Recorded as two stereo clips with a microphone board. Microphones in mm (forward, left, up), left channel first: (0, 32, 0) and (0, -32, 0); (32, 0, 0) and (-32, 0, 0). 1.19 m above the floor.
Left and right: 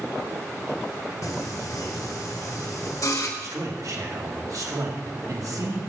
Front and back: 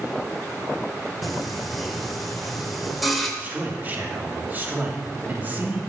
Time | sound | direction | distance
1.2 | singing | 90° left | 1.5 m
3.4 | a man speaking | 120° right | 2 m